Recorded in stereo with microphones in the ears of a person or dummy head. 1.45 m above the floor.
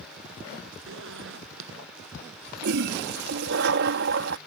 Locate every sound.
0.9 s a zipper: 80° right
2.6 s a toilet flushing: 50° right (ahead or behind)